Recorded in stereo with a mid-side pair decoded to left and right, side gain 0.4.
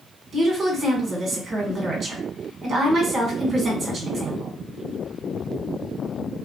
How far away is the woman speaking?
About 1.4 m.